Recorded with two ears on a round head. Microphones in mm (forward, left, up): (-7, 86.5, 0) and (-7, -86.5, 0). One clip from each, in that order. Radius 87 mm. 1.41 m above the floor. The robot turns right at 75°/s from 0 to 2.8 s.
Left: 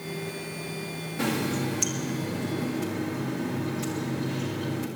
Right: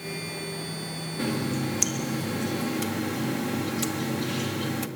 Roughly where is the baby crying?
I don't hear a baby crying.